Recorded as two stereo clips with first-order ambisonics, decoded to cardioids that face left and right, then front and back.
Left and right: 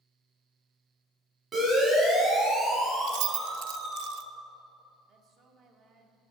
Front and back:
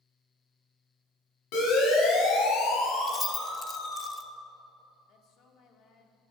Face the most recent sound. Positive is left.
turn(degrees=-40)